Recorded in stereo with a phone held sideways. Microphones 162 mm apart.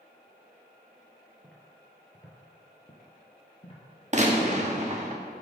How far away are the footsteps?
About 1.6 m.